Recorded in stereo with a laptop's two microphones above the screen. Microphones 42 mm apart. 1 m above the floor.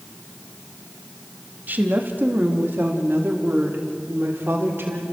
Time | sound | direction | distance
1.7 | a woman speaking | 50° right (ahead or behind) | 1.8 m